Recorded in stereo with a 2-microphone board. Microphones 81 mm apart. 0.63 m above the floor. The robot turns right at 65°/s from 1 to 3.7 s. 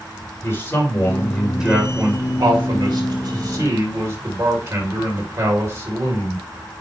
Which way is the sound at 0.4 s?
150° left.